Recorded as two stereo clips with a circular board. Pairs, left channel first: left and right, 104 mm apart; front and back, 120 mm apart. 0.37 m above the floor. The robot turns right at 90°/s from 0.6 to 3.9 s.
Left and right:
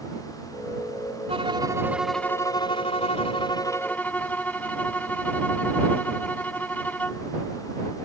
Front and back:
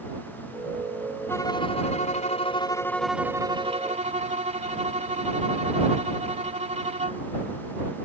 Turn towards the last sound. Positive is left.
turn(degrees=165)